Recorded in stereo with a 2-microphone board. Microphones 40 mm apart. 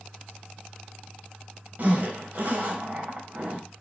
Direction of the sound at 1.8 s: 45° right (ahead or behind).